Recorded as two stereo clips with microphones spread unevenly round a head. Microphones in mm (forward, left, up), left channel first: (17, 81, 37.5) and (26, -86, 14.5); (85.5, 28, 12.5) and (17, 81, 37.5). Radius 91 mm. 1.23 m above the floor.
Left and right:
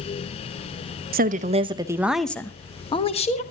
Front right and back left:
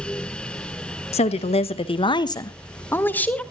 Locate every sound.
1.1 s a woman speaking: 45° right, 1.1 m; by 3.4 s 40° left, 1.6 m